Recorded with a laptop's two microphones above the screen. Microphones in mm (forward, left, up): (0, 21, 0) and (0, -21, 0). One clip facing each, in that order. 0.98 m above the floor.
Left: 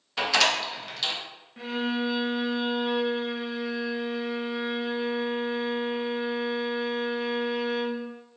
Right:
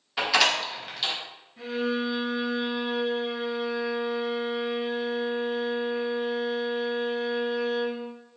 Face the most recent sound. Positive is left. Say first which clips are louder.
# right 1 dB
turn(degrees=50)  # may be behind; listen again after turning